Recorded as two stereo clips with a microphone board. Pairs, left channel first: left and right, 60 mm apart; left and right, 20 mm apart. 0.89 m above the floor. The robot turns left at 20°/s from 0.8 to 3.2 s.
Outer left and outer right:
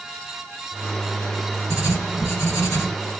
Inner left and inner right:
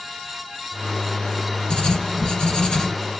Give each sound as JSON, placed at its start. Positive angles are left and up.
{"t": 1.7, "sound": "writing", "side_deg": 55, "distance_m": 1.2}